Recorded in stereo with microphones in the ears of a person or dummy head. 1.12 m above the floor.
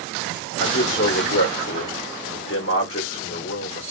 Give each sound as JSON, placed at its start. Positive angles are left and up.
{"t": 0.6, "sound": "a man speaking", "side_deg": 60, "distance_m": 1.4}